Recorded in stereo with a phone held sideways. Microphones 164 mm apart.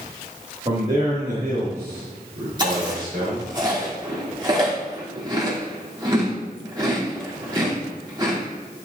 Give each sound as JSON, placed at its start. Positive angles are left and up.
{"t": 0.7, "sound": "a man speaking", "side_deg": -40, "distance_m": 1.7}
{"t": 2.6, "sound": "chewing", "side_deg": -30, "distance_m": 2.5}